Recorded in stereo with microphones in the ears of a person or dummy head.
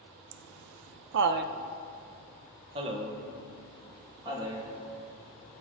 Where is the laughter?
65° right (ahead or behind), 0.6 m; by 5.6 s 15° right (ahead or behind), 3 m.